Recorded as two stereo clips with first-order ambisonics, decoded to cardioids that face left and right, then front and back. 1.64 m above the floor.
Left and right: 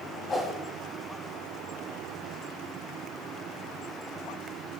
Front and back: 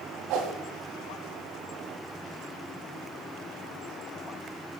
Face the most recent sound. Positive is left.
turn(degrees=155)